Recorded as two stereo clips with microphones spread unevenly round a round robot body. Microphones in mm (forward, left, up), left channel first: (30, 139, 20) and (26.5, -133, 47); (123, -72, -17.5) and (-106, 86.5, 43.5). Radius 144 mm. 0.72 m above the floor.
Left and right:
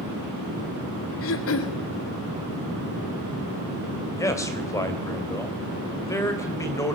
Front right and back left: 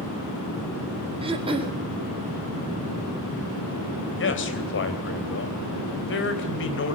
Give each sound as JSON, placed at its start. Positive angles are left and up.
{"t": 1.2, "sound": "throat clearing", "azimuth_deg": 70, "distance_m": 2.0}
{"t": 4.2, "sound": "a man speaking", "azimuth_deg": 10, "distance_m": 3.0}